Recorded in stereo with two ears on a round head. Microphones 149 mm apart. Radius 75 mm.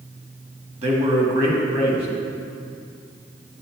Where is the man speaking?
40° right (ahead or behind), 1.7 m.